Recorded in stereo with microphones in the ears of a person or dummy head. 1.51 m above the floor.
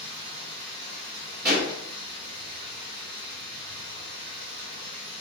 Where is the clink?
I don't hear a clink.